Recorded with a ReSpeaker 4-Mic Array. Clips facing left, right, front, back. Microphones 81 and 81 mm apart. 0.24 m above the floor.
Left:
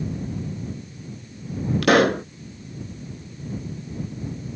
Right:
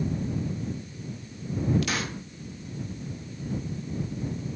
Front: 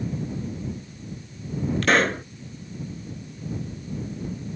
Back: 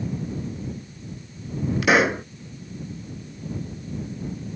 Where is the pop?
100° left.